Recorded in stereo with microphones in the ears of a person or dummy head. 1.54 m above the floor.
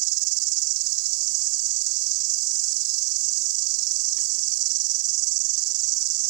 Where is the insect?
80° right.